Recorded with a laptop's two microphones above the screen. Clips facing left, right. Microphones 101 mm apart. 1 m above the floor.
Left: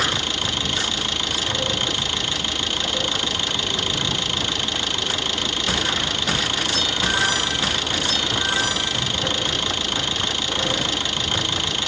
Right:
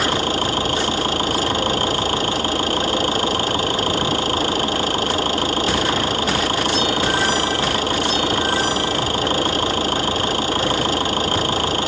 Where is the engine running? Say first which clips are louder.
Right 7 dB; 40° right (ahead or behind).